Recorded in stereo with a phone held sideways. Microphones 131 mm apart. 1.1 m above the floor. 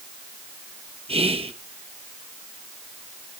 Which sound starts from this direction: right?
Whispering, at 1.1 s.